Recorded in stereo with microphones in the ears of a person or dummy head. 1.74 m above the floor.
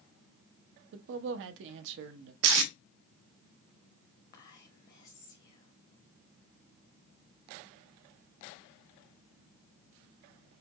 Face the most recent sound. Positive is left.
turn(degrees=45)  # may be behind; listen again after turning